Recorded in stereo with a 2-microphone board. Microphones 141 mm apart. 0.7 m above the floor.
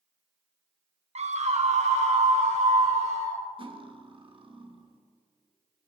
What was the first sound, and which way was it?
A scream, 50° right (ahead or behind).